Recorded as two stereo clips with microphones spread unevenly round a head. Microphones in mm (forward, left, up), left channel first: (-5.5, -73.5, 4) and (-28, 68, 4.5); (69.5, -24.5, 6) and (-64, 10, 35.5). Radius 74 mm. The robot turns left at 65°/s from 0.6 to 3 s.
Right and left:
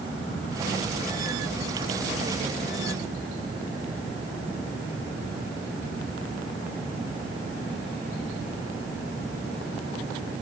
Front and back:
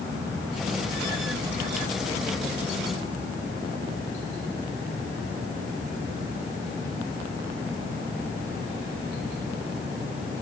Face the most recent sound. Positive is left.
No sound to turn to.